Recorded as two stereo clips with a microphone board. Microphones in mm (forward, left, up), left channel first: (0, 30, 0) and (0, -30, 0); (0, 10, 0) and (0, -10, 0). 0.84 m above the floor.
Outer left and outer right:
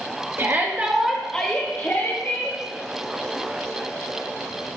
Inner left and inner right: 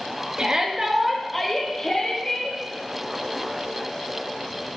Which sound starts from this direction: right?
A shout, at 0.4 s.